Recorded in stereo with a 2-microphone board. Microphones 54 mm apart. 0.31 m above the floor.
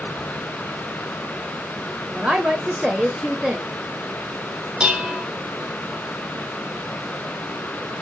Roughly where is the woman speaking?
Centre.